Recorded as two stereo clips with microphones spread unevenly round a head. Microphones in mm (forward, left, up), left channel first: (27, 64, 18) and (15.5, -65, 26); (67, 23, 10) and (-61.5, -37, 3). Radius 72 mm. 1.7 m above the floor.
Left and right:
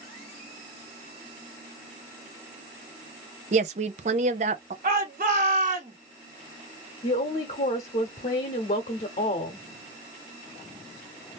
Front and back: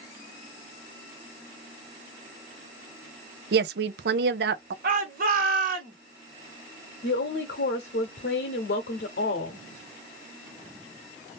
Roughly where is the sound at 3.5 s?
Behind right.